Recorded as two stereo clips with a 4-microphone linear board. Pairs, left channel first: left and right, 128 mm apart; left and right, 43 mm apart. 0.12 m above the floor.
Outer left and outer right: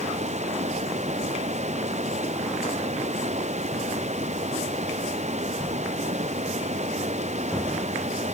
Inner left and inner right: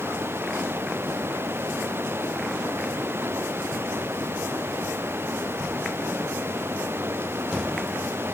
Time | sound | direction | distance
0.0 | running water | 70° right (ahead or behind) | ?